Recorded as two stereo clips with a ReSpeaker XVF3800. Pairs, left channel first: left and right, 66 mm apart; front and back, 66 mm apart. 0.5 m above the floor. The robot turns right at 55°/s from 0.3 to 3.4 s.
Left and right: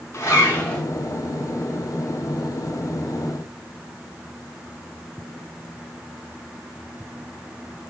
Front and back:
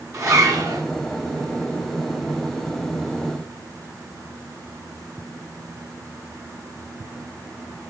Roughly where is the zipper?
Behind left.